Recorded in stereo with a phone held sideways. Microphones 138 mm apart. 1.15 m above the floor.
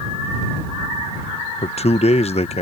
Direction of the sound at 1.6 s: 55° left (ahead or behind).